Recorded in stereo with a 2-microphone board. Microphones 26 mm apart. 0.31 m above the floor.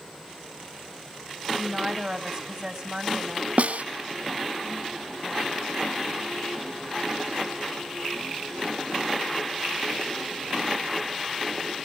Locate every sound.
1.5 s a woman speaking: 20° right (ahead or behind), 1.8 m
3.6 s a snare drum: 60° right (ahead or behind), 0.9 m